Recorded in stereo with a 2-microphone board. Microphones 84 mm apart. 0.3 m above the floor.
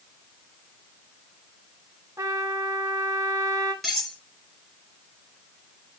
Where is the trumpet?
35° right (ahead or behind), 1.8 m.